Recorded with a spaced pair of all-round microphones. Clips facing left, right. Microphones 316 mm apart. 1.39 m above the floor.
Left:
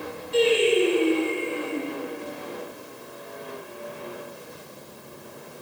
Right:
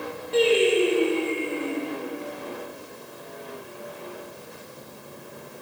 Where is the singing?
65° right (ahead or behind), 1.9 m.